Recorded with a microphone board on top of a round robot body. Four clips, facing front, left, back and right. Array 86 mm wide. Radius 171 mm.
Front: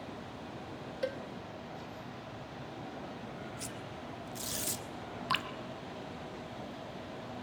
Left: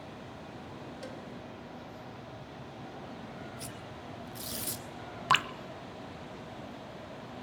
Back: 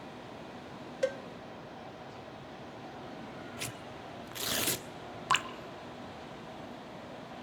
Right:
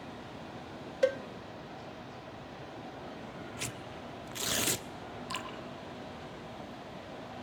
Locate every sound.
1.0 s a cowbell: 105° right, 0.7 m
3.6 s tearing paper: 130° right, 1.4 m
5.3 s dripping: 110° left, 0.7 m